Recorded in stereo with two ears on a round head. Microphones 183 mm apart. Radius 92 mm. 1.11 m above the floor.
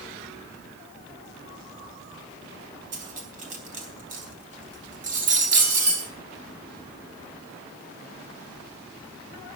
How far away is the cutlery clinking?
About 4 m.